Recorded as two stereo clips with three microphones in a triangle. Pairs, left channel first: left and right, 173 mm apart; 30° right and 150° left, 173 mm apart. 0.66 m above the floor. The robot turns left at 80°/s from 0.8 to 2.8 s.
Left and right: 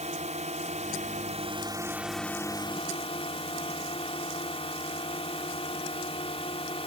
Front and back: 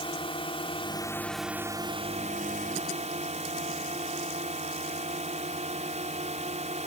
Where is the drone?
75° right; by 6.9 s 125° left.